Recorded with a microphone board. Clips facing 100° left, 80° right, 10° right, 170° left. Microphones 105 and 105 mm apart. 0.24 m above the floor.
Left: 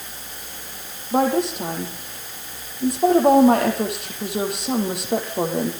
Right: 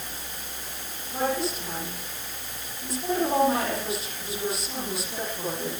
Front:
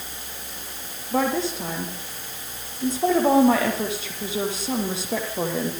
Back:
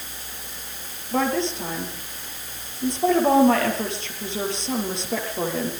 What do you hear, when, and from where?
1.1 s a woman speaking: 75° left, 6.5 m